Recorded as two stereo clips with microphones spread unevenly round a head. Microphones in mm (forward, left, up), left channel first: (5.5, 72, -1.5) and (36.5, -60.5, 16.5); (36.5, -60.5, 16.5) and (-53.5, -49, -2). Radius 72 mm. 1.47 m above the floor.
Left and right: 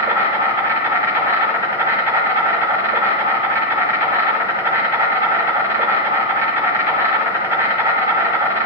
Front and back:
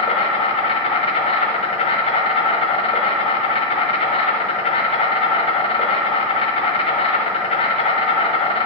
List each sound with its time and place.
0.0 s an insect: 10° right, 1.3 m